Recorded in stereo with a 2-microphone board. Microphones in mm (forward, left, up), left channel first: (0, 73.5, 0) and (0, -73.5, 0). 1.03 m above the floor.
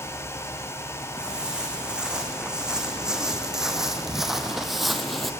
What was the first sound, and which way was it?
Footsteps, 5° right (ahead or behind).